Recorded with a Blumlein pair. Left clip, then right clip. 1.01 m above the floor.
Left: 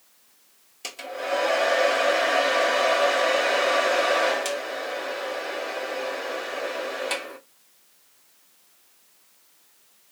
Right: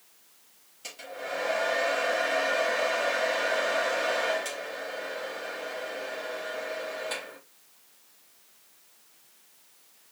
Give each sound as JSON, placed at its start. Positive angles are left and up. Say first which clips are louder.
{"t": 0.8, "sound": "a hair dryer", "louder": "left 7 dB", "azimuth_deg": 60, "distance_m": 1.1}